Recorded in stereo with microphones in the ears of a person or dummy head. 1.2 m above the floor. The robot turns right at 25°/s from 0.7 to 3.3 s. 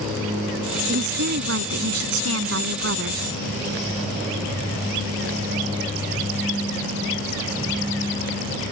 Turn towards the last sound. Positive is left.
turn(degrees=-60)